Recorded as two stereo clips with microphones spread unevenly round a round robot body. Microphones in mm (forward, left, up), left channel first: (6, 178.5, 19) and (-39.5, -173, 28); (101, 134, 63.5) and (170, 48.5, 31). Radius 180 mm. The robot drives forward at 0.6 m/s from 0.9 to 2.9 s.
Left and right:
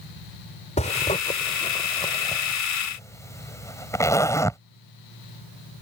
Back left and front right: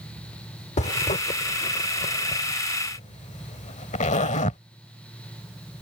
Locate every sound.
0.8 s a zipper: 150° left; by 4.6 s 165° left